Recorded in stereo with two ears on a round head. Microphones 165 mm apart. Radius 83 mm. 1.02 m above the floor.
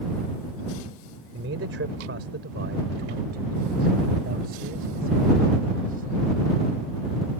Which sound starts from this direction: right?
A man speaking, at 1.3 s.